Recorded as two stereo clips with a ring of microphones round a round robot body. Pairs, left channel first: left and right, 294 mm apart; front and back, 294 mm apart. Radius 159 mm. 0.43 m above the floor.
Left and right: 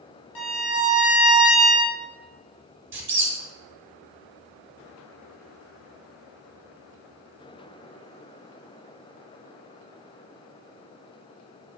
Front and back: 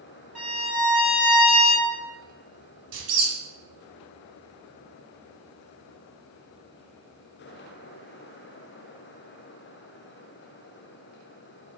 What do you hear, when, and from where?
0.3 s a violin: 90° left, 0.9 m
2.9 s a squeak: 140° right, 0.8 m